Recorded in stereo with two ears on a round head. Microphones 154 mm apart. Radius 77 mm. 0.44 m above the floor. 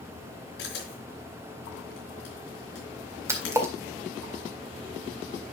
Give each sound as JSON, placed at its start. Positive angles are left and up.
{"t": 0.6, "sound": "a camera shutter", "side_deg": 75, "distance_m": 4.5}
{"t": 3.3, "sound": "a splash", "side_deg": -15, "distance_m": 1.8}